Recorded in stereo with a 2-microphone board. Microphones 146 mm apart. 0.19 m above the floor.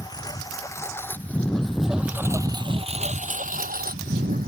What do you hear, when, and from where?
0.0 s a lawn mower: 25° left (ahead or behind); by 4.5 s 85° right